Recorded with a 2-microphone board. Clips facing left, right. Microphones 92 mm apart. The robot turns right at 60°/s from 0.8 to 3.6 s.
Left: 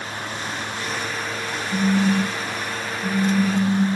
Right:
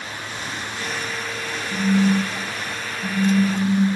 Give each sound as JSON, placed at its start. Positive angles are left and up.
{"t": 1.7, "sound": "a phone buzzing", "azimuth_deg": -150, "distance_m": 1.5}